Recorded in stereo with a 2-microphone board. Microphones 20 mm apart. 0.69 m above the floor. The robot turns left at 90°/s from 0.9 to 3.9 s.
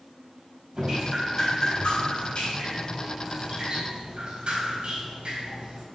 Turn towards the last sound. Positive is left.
turn(degrees=-55)